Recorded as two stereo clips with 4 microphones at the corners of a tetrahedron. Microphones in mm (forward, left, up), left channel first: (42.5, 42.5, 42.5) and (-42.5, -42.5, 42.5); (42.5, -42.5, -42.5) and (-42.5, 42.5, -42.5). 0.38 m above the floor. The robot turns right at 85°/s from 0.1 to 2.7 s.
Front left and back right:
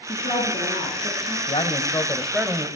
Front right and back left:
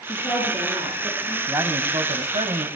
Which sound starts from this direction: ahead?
A woman speaking, at 0.1 s.